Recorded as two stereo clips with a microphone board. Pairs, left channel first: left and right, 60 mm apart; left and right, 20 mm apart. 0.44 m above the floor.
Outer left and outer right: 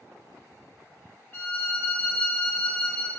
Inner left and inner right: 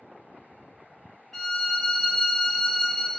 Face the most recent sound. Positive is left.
turn(degrees=35)  # may be behind; listen again after turning